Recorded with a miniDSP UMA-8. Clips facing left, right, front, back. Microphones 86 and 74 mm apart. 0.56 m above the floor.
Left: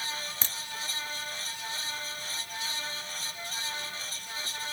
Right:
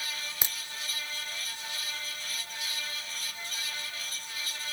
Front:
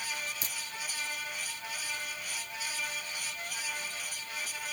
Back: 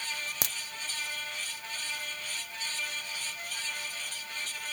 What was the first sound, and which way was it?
A crack, 165° right.